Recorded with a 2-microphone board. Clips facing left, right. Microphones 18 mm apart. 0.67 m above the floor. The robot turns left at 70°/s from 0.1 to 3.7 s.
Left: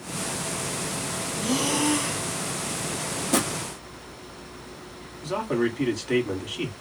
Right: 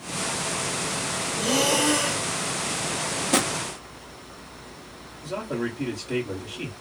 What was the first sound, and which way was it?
Breathing, 65° right.